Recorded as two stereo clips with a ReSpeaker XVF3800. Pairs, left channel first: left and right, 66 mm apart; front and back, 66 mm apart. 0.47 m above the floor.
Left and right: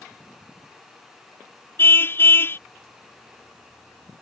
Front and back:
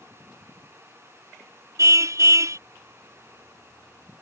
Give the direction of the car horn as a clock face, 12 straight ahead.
7 o'clock.